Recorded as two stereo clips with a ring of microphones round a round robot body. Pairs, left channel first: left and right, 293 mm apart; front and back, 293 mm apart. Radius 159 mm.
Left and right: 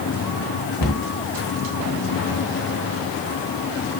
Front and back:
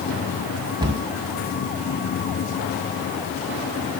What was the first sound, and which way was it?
A cupboard door, 105° left.